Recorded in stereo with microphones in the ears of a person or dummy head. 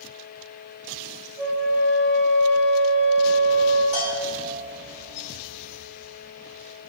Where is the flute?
55° right (ahead or behind), 2 m.